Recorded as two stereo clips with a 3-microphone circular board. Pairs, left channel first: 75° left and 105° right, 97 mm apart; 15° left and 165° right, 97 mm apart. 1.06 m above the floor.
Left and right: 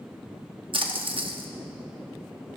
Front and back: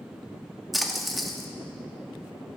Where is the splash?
75° right, 1.1 m.